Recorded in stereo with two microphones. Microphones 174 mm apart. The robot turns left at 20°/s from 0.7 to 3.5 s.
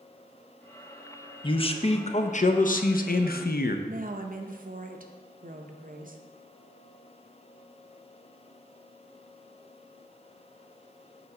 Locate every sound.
1.4 s a man speaking: 150° left, 0.5 m; by 3.8 s 105° left, 0.5 m
3.9 s a woman speaking: 55° right (ahead or behind), 0.7 m